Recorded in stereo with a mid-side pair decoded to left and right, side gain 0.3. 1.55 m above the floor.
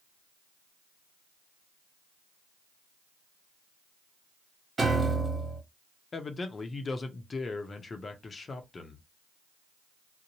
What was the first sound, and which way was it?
A piano, 50° right.